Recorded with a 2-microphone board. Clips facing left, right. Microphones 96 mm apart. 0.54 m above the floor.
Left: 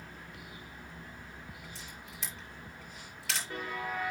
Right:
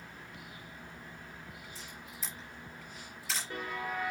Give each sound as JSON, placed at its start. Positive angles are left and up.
{"t": 1.8, "sound": "a camera shutter", "side_deg": 80, "distance_m": 6.0}